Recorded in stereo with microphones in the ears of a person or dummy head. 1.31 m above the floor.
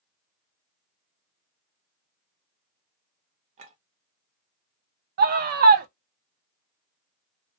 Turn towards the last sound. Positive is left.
turn(degrees=-50)  # may be behind; listen again after turning